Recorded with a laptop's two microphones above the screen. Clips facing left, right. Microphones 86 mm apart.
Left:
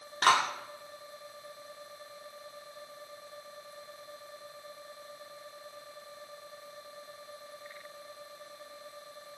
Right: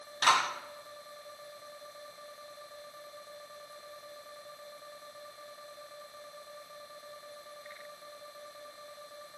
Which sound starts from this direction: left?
A clap, at 0.2 s.